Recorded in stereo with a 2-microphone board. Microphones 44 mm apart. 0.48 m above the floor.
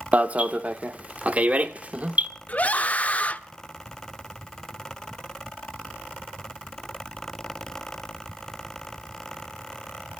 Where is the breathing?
No breathing in this recording.